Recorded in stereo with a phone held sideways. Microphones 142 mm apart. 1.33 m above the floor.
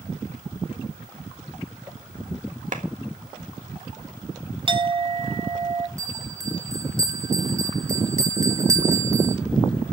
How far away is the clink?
About 0.8 m.